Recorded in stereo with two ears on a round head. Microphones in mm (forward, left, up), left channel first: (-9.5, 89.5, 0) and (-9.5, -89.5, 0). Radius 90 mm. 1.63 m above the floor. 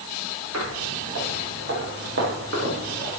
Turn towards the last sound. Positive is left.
turn(degrees=-55)  # may be behind; listen again after turning